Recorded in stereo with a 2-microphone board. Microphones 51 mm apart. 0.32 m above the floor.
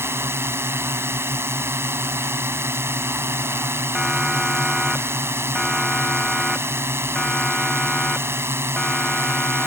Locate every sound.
0.0 s a drone: 55° right (ahead or behind)
4.0 s a siren: 5° right (ahead or behind); by 9.7 s 15° left (ahead or behind)